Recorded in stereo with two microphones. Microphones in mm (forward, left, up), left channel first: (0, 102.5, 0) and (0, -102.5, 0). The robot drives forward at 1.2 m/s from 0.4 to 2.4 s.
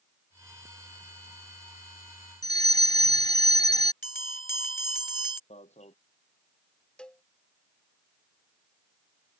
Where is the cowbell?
5° left (ahead or behind).